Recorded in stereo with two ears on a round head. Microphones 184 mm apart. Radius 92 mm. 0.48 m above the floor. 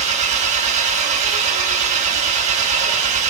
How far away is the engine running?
About 1.0 m.